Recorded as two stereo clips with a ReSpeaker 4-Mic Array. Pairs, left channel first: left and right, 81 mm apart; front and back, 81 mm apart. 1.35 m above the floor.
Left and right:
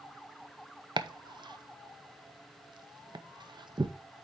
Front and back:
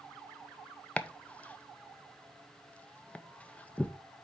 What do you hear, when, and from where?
1.0 s chopping: 75° right, 0.6 m